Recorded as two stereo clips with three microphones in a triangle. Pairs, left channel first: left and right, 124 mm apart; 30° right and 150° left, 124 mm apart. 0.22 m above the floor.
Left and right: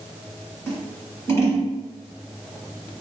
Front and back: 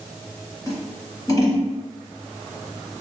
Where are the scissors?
25° left, 1.6 m.